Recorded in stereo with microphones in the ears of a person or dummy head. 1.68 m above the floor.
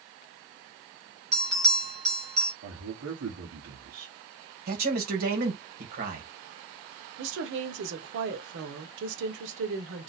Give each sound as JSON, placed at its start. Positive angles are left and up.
{"t": 1.3, "sound": "a bell", "side_deg": -30, "distance_m": 2.0}
{"t": 2.6, "sound": "a man speaking", "side_deg": -80, "distance_m": 1.4}
{"t": 4.7, "sound": "a man speaking", "side_deg": -50, "distance_m": 1.8}
{"t": 7.2, "sound": "a woman speaking", "side_deg": -80, "distance_m": 1.3}